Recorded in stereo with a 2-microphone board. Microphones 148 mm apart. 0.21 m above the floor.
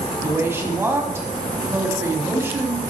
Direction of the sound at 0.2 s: 15° right (ahead or behind).